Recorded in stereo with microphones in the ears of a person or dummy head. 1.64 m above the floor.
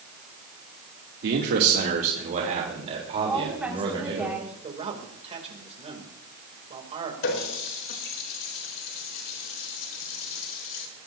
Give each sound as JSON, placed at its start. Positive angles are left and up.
{"t": 1.2, "sound": "a man speaking", "side_deg": -60, "distance_m": 2.5}
{"t": 3.3, "sound": "a woman speaking", "side_deg": -5, "distance_m": 5.5}
{"t": 4.6, "sound": "a man speaking", "side_deg": -30, "distance_m": 2.5}
{"t": 7.2, "sound": "a running tap", "side_deg": 65, "distance_m": 4.0}